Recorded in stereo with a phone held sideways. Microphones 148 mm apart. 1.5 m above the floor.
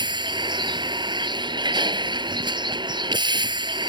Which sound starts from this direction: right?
A vehicle, at 0.0 s.